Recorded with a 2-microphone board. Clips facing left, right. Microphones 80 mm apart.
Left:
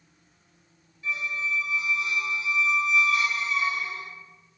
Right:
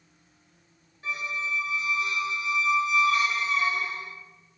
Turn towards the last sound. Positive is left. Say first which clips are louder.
# left 1 dB
turn(degrees=-50)  # may be behind; listen again after turning